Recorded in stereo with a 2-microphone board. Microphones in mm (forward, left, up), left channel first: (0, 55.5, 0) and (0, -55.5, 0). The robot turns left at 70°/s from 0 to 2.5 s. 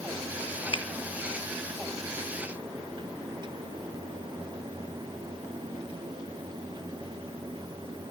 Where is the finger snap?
50° left (ahead or behind), 1.9 m.